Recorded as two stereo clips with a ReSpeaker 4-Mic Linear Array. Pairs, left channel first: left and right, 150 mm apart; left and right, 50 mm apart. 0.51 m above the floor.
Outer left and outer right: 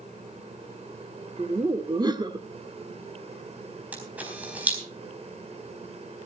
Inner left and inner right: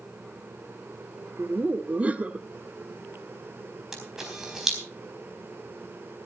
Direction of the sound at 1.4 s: 25° right (ahead or behind).